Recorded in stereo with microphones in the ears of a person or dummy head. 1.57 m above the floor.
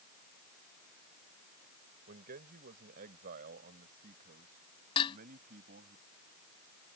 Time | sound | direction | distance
2.1 | a man speaking | 50° right (ahead or behind) | ?
5.0 | dishes clattering | 30° left (ahead or behind) | ?